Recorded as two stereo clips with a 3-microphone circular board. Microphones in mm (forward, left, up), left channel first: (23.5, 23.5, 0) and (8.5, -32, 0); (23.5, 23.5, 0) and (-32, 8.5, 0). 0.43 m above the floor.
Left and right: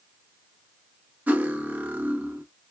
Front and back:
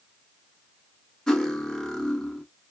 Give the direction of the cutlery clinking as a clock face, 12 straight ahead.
2 o'clock.